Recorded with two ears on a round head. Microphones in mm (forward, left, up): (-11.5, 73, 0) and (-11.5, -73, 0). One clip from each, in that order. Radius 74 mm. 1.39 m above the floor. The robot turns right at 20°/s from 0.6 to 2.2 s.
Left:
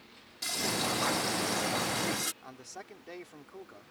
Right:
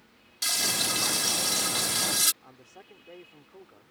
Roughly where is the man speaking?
Left.